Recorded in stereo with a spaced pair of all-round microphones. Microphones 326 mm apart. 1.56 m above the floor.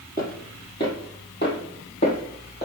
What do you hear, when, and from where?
0.2 s footsteps: 25° left (ahead or behind), 1.7 m; by 2.7 s 35° left (ahead or behind), 2.5 m